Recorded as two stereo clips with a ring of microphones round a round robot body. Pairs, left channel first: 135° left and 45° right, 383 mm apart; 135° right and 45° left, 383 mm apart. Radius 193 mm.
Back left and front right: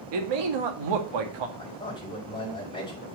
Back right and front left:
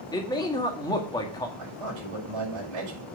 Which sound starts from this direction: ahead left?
A man speaking, at 1.6 s.